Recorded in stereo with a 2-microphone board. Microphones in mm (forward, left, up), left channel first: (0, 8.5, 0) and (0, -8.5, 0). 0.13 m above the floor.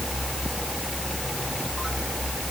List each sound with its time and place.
Only background noise.